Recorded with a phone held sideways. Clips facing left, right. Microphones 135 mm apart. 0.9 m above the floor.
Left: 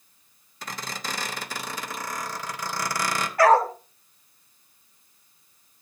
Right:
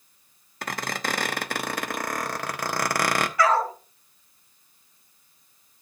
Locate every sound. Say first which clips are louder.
0.6 s a squeak: right 5 dB; 60° right (ahead or behind), 0.9 m
3.4 s a dog barking: left 6 dB; 50° left (ahead or behind), 1.8 m